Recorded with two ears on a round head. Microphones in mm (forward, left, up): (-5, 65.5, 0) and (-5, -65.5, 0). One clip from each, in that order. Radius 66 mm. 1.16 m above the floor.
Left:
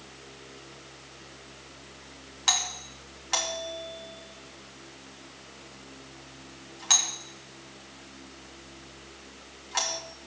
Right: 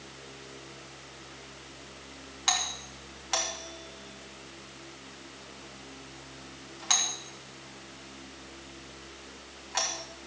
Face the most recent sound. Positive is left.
turn(degrees=10)  # may be behind; listen again after turning